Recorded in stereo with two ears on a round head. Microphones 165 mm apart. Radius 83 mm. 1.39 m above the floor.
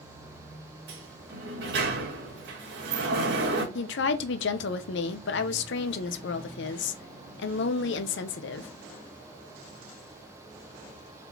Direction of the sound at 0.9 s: 60° right (ahead or behind).